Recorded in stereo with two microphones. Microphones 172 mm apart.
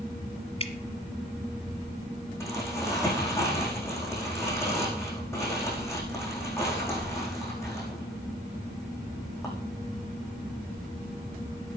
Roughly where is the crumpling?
Centre.